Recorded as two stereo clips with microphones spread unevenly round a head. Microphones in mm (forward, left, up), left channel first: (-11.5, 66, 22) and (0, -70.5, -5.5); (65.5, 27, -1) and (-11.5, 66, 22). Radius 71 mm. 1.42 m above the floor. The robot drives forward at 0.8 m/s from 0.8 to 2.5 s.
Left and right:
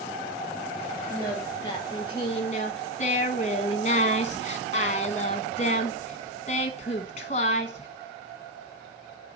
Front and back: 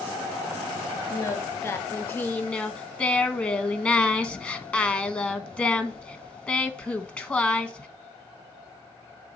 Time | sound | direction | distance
1.1 | singing | 25° left | 2 m